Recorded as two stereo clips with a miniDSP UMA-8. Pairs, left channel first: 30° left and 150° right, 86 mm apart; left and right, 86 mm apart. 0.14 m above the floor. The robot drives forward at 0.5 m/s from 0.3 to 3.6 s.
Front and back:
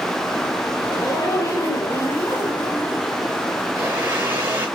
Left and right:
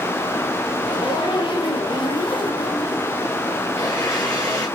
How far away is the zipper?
About 3.5 m.